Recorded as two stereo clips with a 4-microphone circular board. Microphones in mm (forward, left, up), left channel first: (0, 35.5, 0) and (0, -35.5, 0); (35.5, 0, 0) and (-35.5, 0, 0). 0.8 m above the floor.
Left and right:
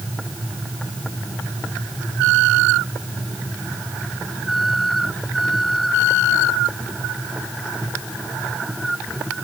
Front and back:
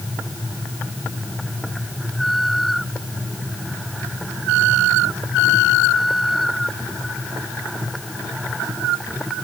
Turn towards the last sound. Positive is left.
No sound to turn to.